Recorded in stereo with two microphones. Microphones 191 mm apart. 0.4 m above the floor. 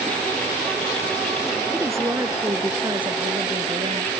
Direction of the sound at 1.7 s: 10° right (ahead or behind).